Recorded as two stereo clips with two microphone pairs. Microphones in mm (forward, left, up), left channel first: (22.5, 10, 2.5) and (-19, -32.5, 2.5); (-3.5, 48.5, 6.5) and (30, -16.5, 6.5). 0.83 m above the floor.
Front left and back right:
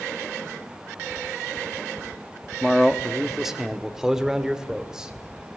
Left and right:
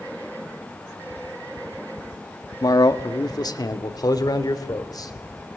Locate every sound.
2.6 s a man speaking: 135° left, 1.1 m; by 5.1 s 150° left, 3 m